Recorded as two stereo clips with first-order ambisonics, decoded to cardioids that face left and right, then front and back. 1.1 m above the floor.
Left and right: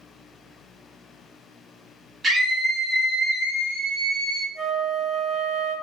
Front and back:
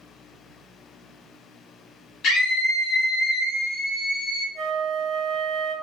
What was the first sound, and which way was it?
A scream, 20° right.